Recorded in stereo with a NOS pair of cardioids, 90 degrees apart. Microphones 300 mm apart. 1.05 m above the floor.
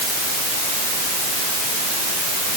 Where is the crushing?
I don't hear crushing.